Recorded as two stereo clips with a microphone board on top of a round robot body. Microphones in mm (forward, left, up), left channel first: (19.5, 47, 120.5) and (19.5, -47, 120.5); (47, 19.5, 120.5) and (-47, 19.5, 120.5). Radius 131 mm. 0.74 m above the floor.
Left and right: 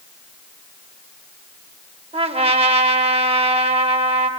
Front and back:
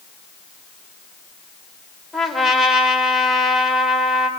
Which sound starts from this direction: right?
A trumpet, at 2.1 s.